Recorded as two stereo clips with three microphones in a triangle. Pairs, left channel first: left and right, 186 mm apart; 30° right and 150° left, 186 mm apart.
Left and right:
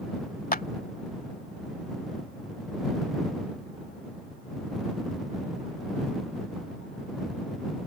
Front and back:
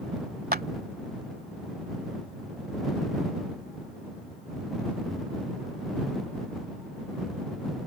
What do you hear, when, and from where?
0.5 s a clap: 125° left